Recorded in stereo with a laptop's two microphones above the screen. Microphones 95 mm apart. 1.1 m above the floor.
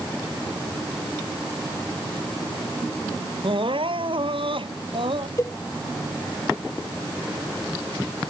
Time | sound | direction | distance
3.4 | crying | 65° right (ahead or behind) | ?
5.4 | a cowbell | 35° left (ahead or behind) | ?